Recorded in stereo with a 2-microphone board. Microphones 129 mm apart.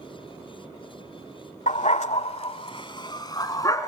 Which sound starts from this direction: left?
A dog barking, at 1.7 s.